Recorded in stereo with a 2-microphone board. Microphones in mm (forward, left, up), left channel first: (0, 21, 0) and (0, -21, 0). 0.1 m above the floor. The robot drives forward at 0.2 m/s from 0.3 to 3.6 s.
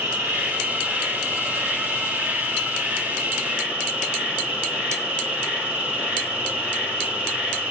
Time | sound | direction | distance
0.0 | an insect | 55° right (ahead or behind) | 1.8 m